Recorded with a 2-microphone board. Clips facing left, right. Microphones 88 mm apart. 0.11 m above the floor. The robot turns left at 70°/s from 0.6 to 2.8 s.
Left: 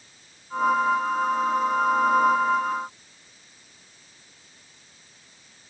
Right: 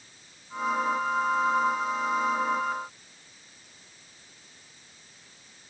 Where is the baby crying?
I don't hear a baby crying.